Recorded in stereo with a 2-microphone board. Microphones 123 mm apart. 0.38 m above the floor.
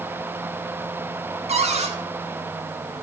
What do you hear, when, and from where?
1.5 s a cupboard door: 65° right (ahead or behind), 1.4 m